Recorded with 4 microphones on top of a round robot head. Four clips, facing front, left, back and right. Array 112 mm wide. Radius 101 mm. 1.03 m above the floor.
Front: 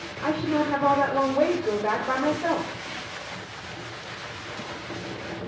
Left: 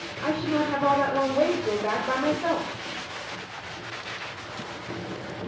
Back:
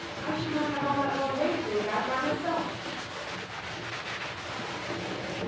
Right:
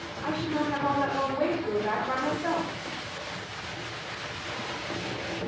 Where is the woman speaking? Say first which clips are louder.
Left 4 dB, front 6 dB; 45° left, 2.5 m.